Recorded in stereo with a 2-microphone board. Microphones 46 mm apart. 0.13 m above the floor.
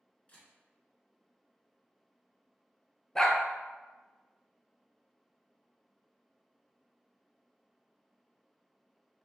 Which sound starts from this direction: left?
A camera shutter, at 0.3 s.